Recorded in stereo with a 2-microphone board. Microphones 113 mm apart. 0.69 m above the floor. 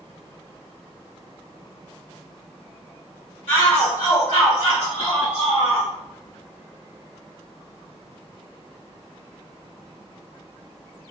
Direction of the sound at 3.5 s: 60° left (ahead or behind).